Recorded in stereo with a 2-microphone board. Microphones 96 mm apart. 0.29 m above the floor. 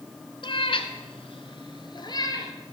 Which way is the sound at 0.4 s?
60° left (ahead or behind).